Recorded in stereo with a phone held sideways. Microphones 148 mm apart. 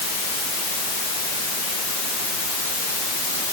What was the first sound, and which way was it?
Only background noise.